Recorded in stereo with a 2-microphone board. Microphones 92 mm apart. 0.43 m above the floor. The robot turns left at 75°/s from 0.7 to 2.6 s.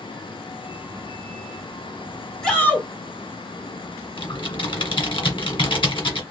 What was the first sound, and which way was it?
A shout, 5° left (ahead or behind).